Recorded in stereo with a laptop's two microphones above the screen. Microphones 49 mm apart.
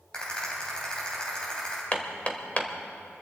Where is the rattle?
20° left (ahead or behind), 3.5 m.